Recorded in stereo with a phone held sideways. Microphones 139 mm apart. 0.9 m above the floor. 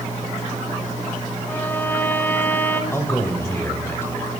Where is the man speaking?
20° left (ahead or behind), 4 m.